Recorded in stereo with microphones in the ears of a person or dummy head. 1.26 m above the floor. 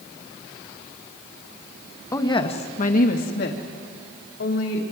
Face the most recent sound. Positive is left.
turn(degrees=70)  # may be behind; listen again after turning